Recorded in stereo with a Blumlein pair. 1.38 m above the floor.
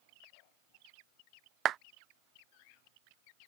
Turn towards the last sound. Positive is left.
turn(degrees=-30)